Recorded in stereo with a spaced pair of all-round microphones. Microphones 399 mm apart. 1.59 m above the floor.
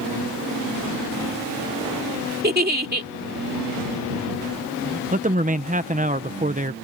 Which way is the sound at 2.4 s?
25° right (ahead or behind).